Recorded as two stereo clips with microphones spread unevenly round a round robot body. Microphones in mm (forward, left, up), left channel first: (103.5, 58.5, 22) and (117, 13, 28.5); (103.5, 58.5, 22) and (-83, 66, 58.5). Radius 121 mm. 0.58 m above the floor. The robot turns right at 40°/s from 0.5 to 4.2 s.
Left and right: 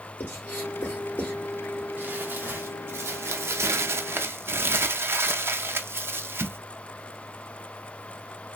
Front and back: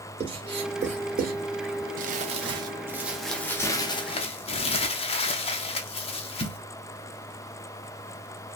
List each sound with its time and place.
0.2 s writing: 115° left, 1.8 m; by 1.4 s 150° left, 1.8 m
2.0 s crumpling: 135° right, 0.5 m; by 6.6 s 45° right, 0.5 m